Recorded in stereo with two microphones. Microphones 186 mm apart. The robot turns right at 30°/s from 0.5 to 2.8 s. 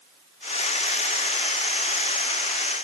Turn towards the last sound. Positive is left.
No sound to turn to.